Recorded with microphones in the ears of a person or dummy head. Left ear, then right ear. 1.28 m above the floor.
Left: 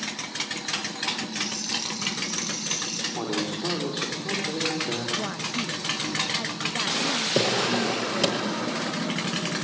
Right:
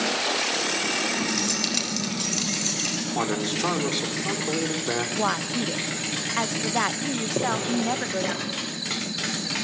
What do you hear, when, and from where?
1.3 s keys jangling: 60° right (ahead or behind), 4.5 m; by 3.0 s 35° right (ahead or behind), 5 m
3.1 s a man speaking: 60° right (ahead or behind), 4 m
5.2 s a woman speaking: 40° right (ahead or behind), 0.7 m
7.3 s a drawer: 70° left (ahead or behind), 8.5 m